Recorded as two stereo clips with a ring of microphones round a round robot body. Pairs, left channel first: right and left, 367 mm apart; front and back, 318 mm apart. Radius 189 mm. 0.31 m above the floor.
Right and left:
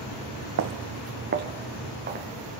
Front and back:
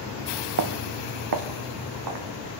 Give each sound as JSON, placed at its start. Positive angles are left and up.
{"t": 0.6, "sound": "footsteps", "azimuth_deg": 145, "distance_m": 1.0}